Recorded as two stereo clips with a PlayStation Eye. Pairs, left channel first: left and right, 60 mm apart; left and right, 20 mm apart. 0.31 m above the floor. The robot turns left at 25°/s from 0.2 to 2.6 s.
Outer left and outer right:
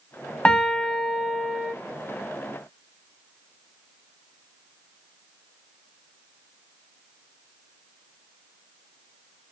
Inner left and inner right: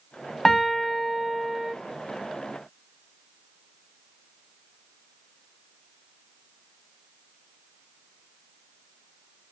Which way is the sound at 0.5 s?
20° left.